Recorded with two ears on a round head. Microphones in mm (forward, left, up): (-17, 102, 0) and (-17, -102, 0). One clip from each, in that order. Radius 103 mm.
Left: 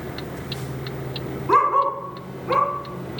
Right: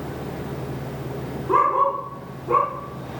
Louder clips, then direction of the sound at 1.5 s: Left 1 dB; 45° left (ahead or behind).